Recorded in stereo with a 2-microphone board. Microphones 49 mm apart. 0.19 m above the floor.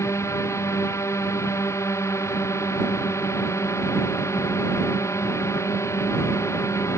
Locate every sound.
0.0 s a drone: 80° left